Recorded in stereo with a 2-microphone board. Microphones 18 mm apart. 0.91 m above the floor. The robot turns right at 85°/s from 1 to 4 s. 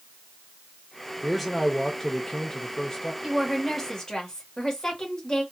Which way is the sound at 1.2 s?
Straight ahead.